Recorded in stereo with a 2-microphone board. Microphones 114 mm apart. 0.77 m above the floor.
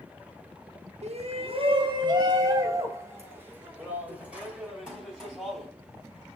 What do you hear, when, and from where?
1.0 s a shout: 70° right (ahead or behind), 1.2 m; by 5.7 s 5° right (ahead or behind), 3.5 m